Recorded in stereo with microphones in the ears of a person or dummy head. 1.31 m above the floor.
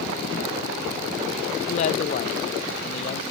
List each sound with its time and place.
1.7 s a man speaking: 40° left (ahead or behind), 0.8 m